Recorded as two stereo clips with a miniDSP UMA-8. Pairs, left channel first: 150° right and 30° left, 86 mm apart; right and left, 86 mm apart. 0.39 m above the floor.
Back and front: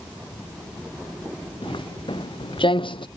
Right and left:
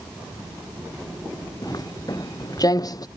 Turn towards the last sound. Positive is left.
turn(degrees=-135)